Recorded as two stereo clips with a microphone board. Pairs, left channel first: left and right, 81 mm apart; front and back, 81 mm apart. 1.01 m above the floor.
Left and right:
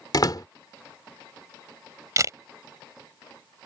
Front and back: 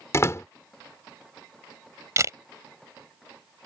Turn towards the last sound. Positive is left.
turn(degrees=-135)